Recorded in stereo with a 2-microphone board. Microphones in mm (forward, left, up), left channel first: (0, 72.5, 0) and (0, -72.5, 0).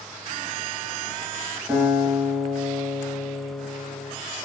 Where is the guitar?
10° right (ahead or behind), 0.7 m.